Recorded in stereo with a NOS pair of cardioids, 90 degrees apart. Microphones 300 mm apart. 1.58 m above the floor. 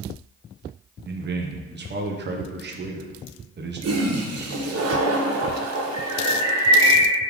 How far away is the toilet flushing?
About 1.4 m.